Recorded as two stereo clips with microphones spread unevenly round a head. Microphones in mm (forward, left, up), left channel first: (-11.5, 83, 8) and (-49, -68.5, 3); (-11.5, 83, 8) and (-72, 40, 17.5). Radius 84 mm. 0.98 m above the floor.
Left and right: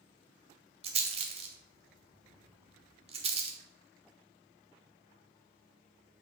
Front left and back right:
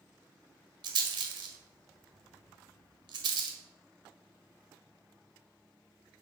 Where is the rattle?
155° right, 1.9 m.